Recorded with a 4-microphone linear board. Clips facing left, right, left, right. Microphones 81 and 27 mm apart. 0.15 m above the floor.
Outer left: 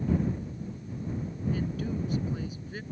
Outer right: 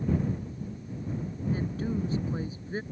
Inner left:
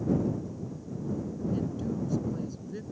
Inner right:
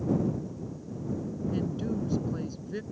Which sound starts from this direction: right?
A woman speaking, at 1.5 s.